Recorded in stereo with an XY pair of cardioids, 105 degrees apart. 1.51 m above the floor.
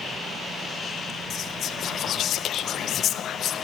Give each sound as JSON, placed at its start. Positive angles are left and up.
{"t": 1.3, "sound": "whispering", "azimuth_deg": 65, "distance_m": 0.8}